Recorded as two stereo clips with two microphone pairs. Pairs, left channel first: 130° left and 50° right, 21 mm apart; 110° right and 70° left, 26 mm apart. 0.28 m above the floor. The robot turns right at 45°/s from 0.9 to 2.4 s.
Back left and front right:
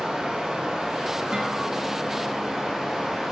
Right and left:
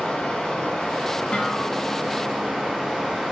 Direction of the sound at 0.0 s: 70° right.